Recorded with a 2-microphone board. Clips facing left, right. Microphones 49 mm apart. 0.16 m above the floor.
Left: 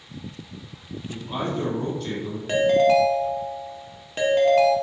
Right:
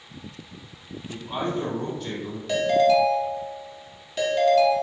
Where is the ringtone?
30° left (ahead or behind), 0.7 m.